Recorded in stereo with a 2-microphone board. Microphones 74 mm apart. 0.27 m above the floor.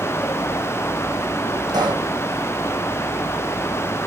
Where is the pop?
75° right (ahead or behind), 4.5 m.